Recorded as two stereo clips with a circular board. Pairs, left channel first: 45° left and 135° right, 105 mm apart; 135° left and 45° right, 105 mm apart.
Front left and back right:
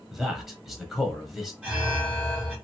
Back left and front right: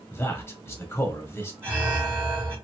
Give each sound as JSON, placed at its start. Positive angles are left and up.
{"t": 0.1, "sound": "a man speaking", "azimuth_deg": 140, "distance_m": 0.9}
{"t": 1.6, "sound": "an alarm", "azimuth_deg": -75, "distance_m": 1.7}